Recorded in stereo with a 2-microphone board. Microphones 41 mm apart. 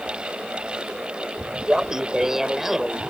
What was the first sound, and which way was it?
Laughter, 20° right (ahead or behind).